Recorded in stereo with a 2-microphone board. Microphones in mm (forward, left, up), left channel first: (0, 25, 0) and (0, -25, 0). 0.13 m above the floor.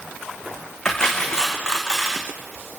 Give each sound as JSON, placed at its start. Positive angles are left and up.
{"t": 0.8, "sound": "cutlery clinking", "side_deg": 10, "distance_m": 5.5}